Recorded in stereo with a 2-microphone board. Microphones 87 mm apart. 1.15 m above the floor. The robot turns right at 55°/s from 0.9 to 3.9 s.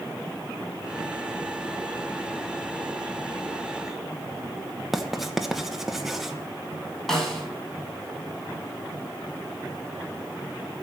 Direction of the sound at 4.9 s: 5° right (ahead or behind).